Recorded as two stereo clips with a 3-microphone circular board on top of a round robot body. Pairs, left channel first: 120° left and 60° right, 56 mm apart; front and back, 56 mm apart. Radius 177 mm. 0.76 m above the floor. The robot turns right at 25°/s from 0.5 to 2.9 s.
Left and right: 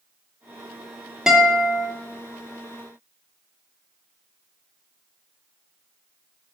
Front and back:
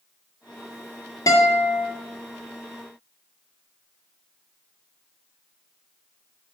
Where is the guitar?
20° left, 1.1 m; by 1.9 s 35° left, 1.1 m.